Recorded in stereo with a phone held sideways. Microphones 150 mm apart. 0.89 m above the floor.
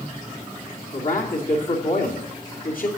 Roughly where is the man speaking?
Left.